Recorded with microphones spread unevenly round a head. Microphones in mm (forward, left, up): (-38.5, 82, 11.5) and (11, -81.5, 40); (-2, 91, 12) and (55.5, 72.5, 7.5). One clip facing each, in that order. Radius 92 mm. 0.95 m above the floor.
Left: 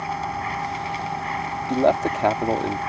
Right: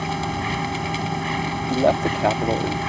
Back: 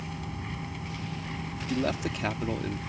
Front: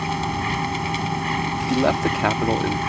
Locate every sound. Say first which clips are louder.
0.0 s a machine running: right 2 dB, front 14 dB; 25° right
1.7 s a man speaking: even, front 9 dB; 15° left